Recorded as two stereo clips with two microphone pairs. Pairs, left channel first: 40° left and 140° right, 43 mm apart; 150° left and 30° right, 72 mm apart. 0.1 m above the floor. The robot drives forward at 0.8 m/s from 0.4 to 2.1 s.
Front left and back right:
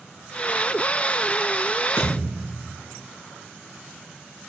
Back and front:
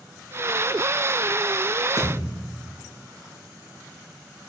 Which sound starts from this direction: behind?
A thud, at 2.0 s.